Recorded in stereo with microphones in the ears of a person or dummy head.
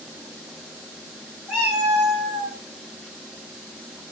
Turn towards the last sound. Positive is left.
turn(degrees=-35)  # may be behind; listen again after turning